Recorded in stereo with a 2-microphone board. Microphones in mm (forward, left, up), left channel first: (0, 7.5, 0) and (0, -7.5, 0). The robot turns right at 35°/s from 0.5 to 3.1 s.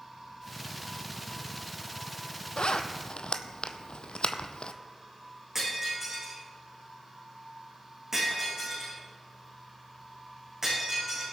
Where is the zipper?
75° left (ahead or behind), 0.7 m; by 4.7 s 80° left, 0.7 m.